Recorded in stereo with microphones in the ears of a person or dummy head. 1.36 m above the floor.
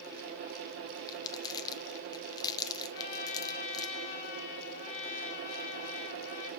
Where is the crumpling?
20° left (ahead or behind), 0.8 m.